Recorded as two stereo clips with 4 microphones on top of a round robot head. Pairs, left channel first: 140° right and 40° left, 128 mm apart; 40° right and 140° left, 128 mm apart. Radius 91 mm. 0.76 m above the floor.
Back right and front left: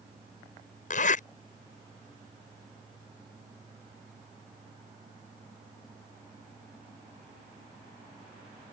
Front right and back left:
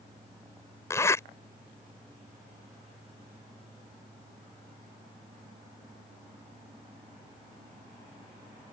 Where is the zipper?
110° right.